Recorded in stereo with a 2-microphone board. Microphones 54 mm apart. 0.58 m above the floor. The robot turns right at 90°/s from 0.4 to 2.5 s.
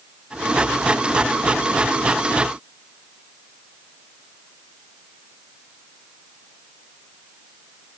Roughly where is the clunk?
No clunk in this recording.